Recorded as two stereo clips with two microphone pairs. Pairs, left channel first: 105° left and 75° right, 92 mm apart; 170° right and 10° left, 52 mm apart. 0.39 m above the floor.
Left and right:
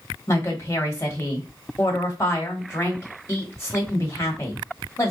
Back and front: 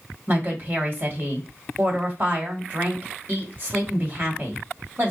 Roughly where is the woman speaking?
Ahead left.